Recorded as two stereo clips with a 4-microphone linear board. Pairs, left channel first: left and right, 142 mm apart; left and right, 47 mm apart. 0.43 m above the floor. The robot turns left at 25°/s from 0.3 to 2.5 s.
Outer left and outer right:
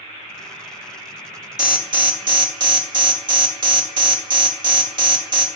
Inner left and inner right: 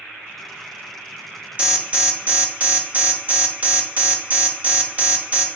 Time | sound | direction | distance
1.6 | an alarm | 30° right (ahead or behind) | 0.9 m